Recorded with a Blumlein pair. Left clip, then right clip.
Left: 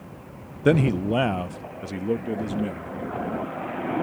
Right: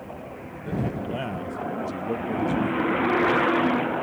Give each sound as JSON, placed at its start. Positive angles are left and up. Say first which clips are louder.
{"t": 0.7, "sound": "a man speaking", "louder": "left 9 dB", "azimuth_deg": 40}